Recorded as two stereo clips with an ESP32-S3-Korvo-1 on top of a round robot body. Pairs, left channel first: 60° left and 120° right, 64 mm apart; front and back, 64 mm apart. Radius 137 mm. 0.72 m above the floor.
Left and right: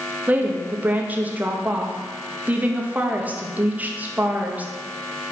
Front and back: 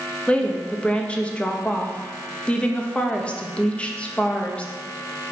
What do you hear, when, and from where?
0.3 s a woman speaking: 65° right, 1.2 m